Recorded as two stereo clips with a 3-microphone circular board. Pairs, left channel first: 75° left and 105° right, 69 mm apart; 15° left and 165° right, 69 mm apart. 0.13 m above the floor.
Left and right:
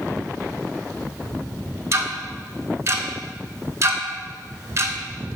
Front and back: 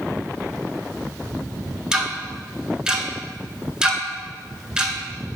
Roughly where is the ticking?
Right.